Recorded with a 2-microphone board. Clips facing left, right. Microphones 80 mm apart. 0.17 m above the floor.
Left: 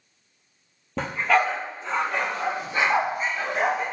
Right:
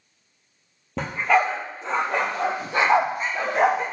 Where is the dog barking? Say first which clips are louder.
Right 1 dB; centre (ahead or behind), 1.3 m; by 3.8 s 65° right (ahead or behind), 2.5 m.